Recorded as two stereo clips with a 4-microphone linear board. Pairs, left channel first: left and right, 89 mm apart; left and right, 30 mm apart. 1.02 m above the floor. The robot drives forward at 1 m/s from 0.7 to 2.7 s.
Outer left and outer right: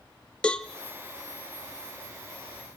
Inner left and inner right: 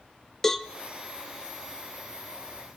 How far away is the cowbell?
About 0.7 m.